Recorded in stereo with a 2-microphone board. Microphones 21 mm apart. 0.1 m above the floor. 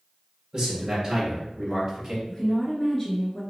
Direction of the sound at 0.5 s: 20° right (ahead or behind).